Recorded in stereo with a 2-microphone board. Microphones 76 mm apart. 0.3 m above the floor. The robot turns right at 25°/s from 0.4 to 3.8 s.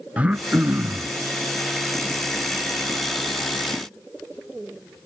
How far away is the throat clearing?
About 1.1 m.